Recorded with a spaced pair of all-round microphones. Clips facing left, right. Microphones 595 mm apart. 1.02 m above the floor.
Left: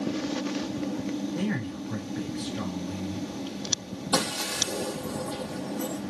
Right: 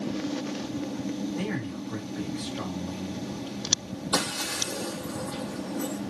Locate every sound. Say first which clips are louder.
1.4 s a man speaking: left 1 dB; 60° left (ahead or behind), 6.5 m
4.1 s breaking glass: left 3 dB; 60° left (ahead or behind), 6.5 m